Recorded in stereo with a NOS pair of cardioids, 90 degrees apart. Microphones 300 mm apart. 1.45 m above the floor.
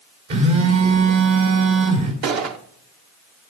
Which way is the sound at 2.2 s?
60° right.